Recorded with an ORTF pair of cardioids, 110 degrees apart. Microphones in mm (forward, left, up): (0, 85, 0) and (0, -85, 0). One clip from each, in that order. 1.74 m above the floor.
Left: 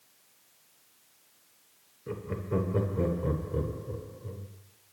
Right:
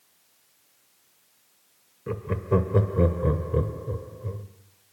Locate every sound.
2.1 s laughter: 30° right, 0.7 m